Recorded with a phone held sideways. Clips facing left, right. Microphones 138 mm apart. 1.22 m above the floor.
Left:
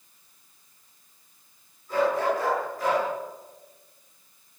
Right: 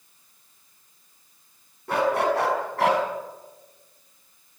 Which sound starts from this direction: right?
A dog barking, at 1.9 s.